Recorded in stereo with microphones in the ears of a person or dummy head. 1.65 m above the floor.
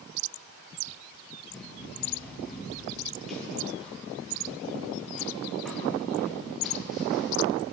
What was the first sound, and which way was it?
Running footsteps, centre (ahead or behind).